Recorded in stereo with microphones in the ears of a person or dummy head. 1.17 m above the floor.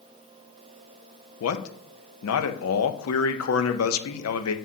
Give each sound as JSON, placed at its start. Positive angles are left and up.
{"t": 1.4, "sound": "a man speaking", "side_deg": 80, "distance_m": 0.7}